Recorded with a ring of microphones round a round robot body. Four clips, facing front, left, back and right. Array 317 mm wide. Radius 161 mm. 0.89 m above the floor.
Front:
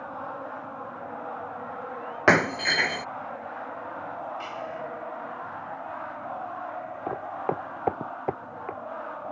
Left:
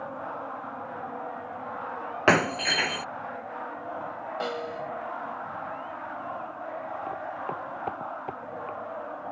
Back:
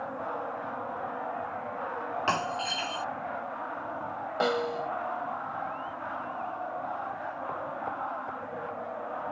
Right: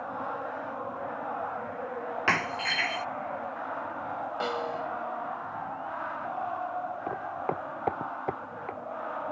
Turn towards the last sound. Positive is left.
turn(degrees=-15)